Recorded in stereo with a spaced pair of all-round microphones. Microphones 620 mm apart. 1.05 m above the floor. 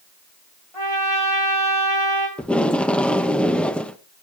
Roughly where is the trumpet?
Left.